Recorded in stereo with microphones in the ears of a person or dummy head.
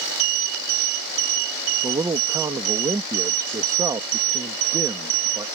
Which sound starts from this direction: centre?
A man speaking, at 1.8 s.